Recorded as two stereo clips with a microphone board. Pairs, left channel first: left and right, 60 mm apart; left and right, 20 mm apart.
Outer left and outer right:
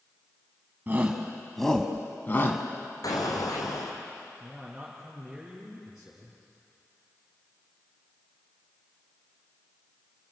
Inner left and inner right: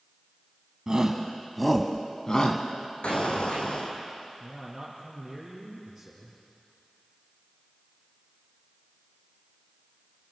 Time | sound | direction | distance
0.9 | a shout | 30° right (ahead or behind) | 1.6 m
3.0 | an explosion | 75° left (ahead or behind) | 3.5 m
4.4 | a man speaking | 10° right (ahead or behind) | 4 m